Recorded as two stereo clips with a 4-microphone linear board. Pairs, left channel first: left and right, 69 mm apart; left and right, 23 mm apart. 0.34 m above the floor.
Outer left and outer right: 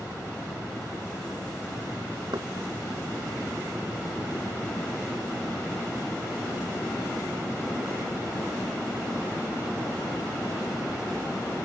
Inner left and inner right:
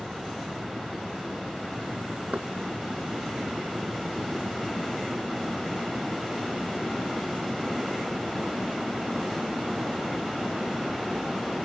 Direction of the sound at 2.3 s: 75° right (ahead or behind).